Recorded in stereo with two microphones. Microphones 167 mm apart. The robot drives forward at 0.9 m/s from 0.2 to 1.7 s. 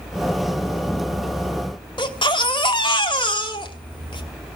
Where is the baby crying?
30° left (ahead or behind), 2 m.